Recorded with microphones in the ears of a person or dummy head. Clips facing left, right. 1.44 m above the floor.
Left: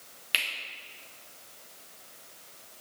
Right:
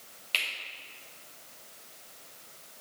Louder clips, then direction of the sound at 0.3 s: Left 1 dB; 10° left (ahead or behind).